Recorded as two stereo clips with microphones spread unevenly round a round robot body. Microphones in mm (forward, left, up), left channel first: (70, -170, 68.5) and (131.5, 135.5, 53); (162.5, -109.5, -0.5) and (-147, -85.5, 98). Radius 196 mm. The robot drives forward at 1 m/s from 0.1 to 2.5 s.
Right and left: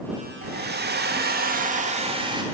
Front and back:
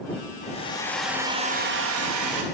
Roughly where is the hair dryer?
Ahead left.